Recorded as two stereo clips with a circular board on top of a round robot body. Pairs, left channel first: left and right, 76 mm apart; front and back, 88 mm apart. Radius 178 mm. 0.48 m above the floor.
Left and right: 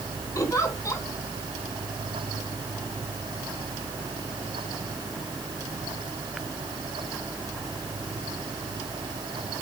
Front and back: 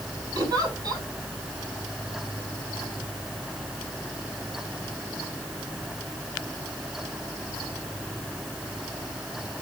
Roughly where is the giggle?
Behind left.